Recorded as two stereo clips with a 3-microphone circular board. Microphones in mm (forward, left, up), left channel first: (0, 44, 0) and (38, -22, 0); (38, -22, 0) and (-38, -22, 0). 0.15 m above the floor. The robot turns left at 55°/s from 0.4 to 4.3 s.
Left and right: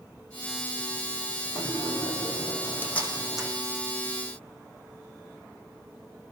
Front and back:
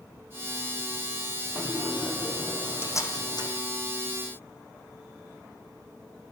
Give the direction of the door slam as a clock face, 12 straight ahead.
8 o'clock.